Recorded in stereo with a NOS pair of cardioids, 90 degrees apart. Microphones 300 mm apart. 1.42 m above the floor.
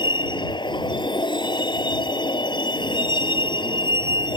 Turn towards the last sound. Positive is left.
turn(degrees=15)